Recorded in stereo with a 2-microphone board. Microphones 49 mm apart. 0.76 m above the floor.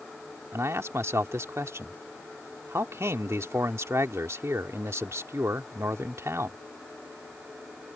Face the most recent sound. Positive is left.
turn(degrees=-70)  # may be behind; listen again after turning